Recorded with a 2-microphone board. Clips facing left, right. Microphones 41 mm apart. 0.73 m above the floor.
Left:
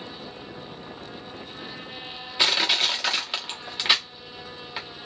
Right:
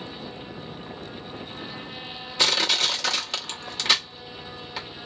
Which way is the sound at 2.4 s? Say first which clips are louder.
Even; 15° left (ahead or behind).